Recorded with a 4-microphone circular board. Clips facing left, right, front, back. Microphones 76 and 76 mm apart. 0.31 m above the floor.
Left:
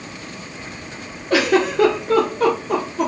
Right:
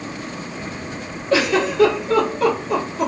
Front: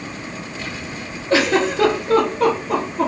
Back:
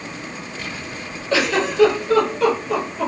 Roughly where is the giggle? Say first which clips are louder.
Left 1 dB, front 3 dB; ahead left.